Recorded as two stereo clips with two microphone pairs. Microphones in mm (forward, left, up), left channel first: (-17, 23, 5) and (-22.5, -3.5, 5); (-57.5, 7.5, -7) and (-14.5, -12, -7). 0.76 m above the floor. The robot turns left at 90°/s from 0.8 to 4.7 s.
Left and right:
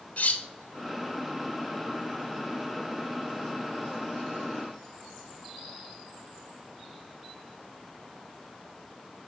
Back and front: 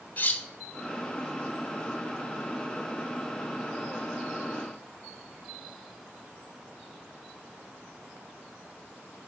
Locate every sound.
0.2 s cutlery clinking: 110° left, 0.6 m